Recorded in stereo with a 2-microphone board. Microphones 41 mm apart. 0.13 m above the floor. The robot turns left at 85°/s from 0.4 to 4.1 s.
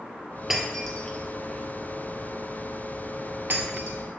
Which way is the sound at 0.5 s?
15° right (ahead or behind).